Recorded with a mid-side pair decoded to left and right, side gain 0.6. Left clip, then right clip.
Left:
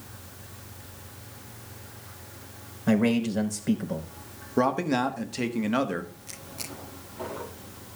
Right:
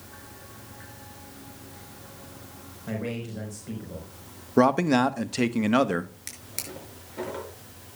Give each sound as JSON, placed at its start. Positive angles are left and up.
{"t": 2.9, "sound": "a man speaking", "azimuth_deg": 45, "distance_m": 4.0}
{"t": 4.6, "sound": "a man speaking", "azimuth_deg": -30, "distance_m": 1.1}
{"t": 6.3, "sound": "a drawer", "azimuth_deg": -70, "distance_m": 5.5}